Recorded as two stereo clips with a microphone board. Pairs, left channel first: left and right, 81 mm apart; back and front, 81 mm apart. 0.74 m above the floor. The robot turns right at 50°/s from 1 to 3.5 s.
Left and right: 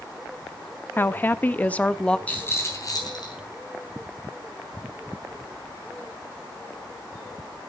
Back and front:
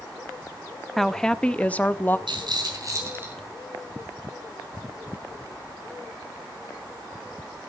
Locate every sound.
1.0 s a woman speaking: 100° left, 0.5 m; by 2.2 s 155° left, 0.5 m
2.3 s a rattle: 15° left, 3 m; by 3.4 s 70° left, 3 m